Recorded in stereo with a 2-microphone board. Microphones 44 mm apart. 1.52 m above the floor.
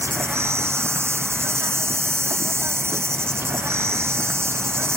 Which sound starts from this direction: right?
An insect, at 0.0 s.